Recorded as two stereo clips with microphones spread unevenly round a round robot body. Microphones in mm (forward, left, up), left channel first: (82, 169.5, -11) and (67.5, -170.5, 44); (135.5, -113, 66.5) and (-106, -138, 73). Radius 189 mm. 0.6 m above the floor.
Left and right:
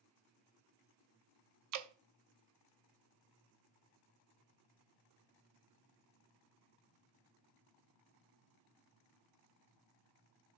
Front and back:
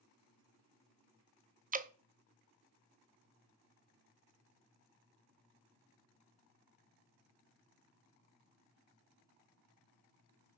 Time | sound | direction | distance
1.7 | dripping | 125° right | 0.6 m